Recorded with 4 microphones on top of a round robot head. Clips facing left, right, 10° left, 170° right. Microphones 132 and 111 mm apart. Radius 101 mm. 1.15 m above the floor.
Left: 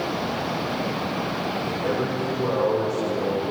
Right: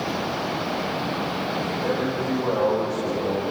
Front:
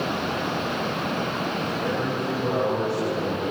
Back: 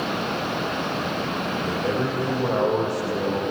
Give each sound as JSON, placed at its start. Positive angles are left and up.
{"t": 1.6, "sound": "a man speaking", "azimuth_deg": 150, "distance_m": 6.5}